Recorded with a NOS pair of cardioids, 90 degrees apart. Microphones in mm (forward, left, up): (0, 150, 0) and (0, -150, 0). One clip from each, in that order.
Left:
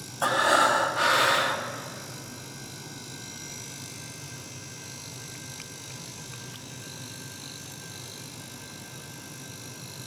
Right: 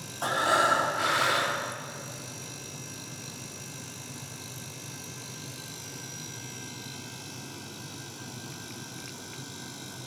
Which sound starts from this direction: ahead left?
Breathing, at 0.2 s.